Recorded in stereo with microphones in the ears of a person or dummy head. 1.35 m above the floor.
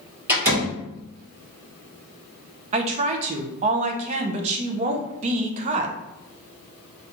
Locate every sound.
0.3 s a door slam: 20° right (ahead or behind), 1.5 m
2.7 s a woman speaking: 40° right (ahead or behind), 0.5 m